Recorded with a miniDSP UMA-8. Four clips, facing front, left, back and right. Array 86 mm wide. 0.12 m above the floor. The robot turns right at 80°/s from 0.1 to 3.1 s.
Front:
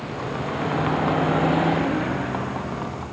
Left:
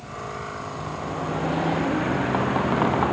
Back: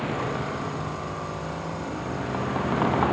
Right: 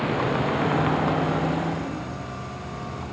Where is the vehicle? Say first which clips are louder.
Right 9 dB, even; 105° right; by 3.1 s 135° left.